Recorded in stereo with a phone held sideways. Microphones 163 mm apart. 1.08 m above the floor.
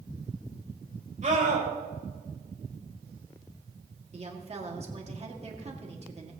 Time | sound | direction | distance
1.2 | a scream | 45° right (ahead or behind) | 4.5 m
4.1 | a woman speaking | 40° right (ahead or behind) | 2 m